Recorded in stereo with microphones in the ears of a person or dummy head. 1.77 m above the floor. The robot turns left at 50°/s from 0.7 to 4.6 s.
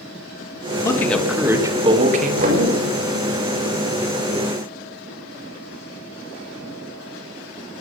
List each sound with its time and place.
0.8 s a man speaking: 25° left, 3 m; by 2.9 s 75° right, 3 m
2.4 s knocking: 40° right (ahead or behind), 5.5 m; by 2.6 s 55° right (ahead or behind), 5.5 m